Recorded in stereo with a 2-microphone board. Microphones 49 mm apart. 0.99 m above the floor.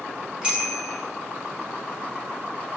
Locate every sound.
0.4 s a bicycle bell: 20° right (ahead or behind), 7.5 m